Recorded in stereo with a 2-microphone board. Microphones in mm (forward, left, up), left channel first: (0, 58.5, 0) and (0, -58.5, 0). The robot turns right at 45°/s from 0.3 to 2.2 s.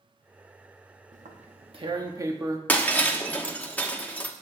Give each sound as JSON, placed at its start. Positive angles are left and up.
{"t": 1.1, "sound": "tearing paper", "side_deg": -75, "distance_m": 1.1}
{"t": 2.7, "sound": "breaking glass", "side_deg": 15, "distance_m": 1.0}